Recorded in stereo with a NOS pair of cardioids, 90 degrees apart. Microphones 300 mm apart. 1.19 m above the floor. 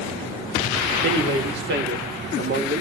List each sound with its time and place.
1.0 s a man speaking: 40° right, 3.5 m; by 2.8 s 30° right, 2.5 m